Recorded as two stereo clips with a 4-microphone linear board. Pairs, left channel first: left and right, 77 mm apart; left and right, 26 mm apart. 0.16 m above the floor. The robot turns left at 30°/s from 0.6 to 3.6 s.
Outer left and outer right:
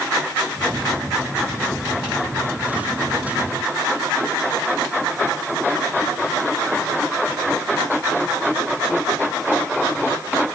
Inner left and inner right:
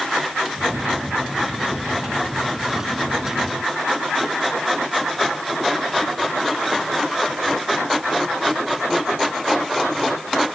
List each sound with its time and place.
Only background noise.